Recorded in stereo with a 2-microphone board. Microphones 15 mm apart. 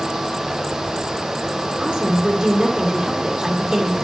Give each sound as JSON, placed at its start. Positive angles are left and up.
{"t": 1.8, "sound": "a woman speaking", "side_deg": -70, "distance_m": 2.5}